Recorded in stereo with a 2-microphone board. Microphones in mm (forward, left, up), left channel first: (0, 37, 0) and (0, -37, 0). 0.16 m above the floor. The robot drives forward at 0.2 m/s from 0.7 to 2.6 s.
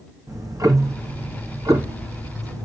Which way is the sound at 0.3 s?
45° right (ahead or behind).